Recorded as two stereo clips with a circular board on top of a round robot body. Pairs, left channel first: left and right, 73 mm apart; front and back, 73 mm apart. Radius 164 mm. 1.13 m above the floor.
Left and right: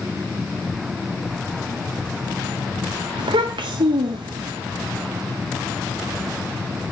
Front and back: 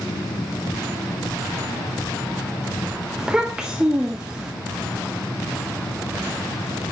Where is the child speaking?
100° right, 0.6 m.